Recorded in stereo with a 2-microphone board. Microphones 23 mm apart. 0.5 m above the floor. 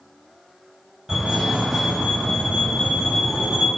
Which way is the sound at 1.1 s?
10° right (ahead or behind).